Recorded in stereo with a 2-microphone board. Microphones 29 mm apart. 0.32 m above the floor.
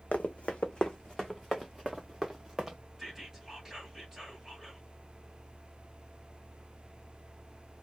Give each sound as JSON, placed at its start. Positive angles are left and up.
{"t": 0.1, "sound": "running footsteps", "side_deg": 60, "distance_m": 0.8}
{"t": 3.0, "sound": "whispering", "side_deg": -10, "distance_m": 2.0}